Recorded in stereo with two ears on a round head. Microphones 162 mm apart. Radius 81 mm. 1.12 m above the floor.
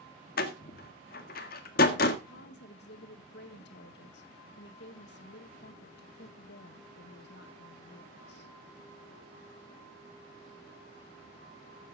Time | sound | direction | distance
0.4 | a door slam | 50° left (ahead or behind) | 1.6 m
2.3 | a woman speaking | 65° left (ahead or behind) | 1.8 m